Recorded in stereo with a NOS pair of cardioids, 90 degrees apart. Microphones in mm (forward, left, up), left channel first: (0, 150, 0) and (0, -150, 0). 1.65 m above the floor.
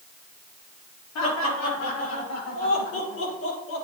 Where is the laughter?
70° left, 4.5 m; by 3.8 s 55° left, 6 m.